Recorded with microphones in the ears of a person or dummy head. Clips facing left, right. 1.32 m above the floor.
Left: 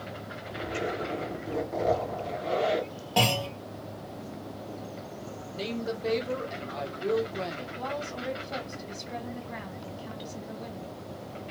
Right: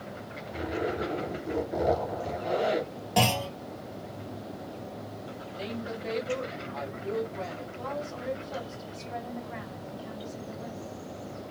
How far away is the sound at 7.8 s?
About 1.7 m.